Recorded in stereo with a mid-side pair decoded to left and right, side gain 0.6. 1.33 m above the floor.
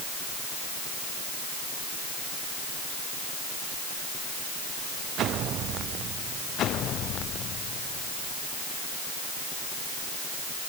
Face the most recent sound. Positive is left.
No sound to turn to.